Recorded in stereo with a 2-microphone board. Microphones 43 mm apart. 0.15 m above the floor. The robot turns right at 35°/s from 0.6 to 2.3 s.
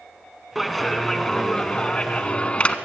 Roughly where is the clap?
Ahead.